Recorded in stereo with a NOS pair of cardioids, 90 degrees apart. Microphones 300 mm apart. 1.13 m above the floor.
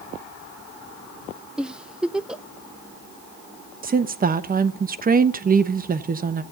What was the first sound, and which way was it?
A giggle, 5° right.